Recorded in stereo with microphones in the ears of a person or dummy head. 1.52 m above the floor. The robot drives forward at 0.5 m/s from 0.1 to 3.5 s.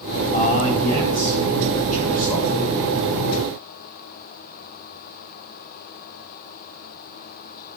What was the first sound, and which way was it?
A man speaking, 45° left (ahead or behind).